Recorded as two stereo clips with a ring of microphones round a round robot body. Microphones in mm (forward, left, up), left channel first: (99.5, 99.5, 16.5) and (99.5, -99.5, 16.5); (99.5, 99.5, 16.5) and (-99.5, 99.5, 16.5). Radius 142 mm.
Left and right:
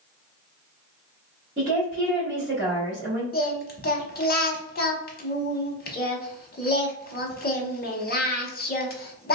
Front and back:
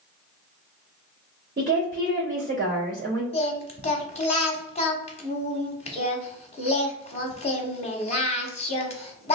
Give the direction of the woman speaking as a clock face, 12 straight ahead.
4 o'clock.